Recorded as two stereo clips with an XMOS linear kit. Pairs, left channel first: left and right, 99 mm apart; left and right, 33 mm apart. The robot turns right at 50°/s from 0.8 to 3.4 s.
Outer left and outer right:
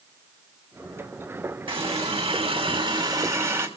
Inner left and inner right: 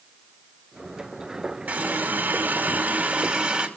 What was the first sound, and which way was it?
A running tap, 115° right.